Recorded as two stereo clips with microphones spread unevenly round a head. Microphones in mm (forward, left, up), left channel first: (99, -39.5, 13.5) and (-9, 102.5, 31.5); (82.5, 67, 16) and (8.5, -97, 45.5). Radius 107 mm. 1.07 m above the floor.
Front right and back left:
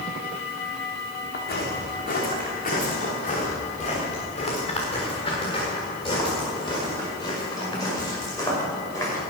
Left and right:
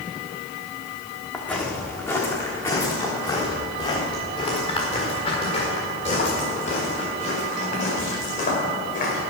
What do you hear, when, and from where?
1.3 s footsteps: 20° right, 4.5 m; by 9.2 s 20° left, 10.5 m